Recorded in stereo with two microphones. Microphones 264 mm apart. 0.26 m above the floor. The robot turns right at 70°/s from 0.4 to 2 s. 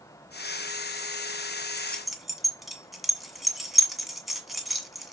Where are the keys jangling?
15° left (ahead or behind), 1.7 m; by 5.1 s centre (ahead or behind), 1.7 m.